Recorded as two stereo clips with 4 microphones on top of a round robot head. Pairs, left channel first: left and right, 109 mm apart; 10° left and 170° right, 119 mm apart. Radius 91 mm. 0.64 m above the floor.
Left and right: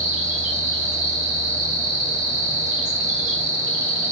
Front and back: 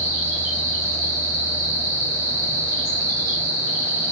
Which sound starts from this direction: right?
An insect, at 0.0 s.